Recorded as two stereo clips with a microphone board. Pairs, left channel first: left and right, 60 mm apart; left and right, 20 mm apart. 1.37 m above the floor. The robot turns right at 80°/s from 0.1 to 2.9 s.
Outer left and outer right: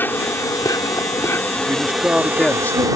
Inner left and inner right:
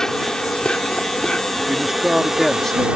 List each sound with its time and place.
0.0 s an insect: 35° left; by 3.0 s 105° right
1.7 s a man speaking: 50° right; by 2.9 s 45° left